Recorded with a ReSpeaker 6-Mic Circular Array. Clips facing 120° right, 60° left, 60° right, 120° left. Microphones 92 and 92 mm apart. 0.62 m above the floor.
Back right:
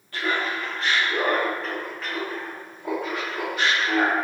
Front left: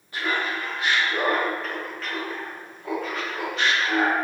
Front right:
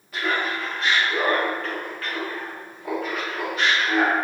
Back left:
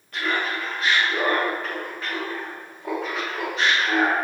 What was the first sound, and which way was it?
Laughter, 20° left.